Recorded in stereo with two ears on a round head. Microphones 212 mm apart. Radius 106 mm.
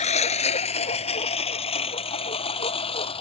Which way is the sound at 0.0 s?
30° left (ahead or behind).